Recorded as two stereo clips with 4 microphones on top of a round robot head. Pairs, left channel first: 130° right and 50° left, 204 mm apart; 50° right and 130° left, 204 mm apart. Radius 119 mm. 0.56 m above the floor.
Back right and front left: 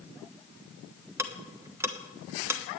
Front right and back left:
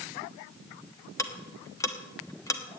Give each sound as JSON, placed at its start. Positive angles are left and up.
{"t": 1.2, "sound": "ticking", "azimuth_deg": -5, "distance_m": 1.2}